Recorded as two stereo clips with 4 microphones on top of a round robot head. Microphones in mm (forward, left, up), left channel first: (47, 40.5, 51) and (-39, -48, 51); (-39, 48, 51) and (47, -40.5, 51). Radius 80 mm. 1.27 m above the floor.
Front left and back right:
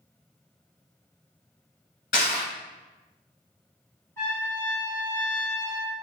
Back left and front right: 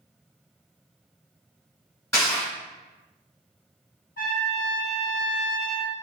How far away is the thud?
No thud in this recording.